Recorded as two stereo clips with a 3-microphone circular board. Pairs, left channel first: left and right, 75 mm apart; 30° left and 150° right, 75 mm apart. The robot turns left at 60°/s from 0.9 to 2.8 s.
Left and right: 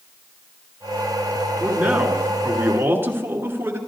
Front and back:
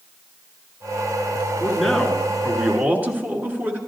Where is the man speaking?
40° right, 1.4 m; by 3.8 s 110° right, 1.4 m.